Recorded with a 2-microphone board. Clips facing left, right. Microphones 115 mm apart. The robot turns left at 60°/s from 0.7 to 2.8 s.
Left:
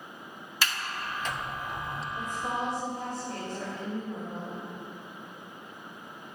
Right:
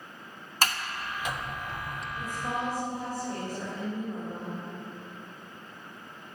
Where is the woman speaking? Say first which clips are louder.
Even; 30° left, 5 m; by 4.6 s 10° right, 5 m.